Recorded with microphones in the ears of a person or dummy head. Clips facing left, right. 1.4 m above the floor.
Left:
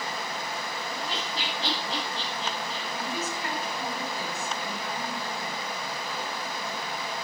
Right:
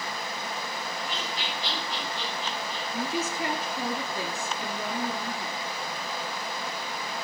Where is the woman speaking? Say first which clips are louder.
Right 4 dB; 75° right (ahead or behind), 3 m.